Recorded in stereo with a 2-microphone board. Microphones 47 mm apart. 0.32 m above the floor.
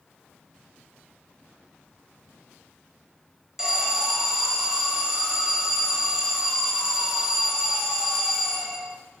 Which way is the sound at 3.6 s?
15° right (ahead or behind).